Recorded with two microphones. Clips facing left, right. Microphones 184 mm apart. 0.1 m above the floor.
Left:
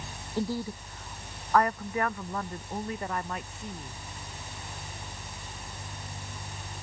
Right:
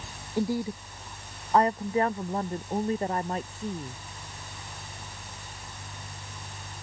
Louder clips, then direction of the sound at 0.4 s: Right 3 dB; 15° right (ahead or behind).